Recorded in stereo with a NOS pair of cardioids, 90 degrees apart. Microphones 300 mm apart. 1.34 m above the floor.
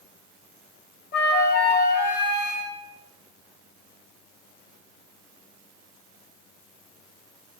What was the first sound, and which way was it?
A flute, 35° left.